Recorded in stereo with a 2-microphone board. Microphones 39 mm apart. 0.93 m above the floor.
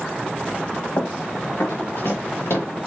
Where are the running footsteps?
55° left (ahead or behind), 3 m; by 2.7 s 70° left (ahead or behind), 4.5 m.